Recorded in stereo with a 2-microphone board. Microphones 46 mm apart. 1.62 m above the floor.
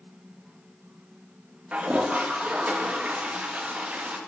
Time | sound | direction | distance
1.7 | a toilet flushing | 30° right (ahead or behind) | 0.7 m